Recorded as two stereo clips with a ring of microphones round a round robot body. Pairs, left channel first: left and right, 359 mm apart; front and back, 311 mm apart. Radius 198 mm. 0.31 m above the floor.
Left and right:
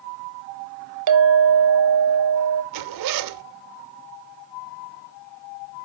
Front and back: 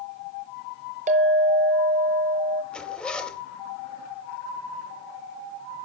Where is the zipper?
85° right, 0.8 m.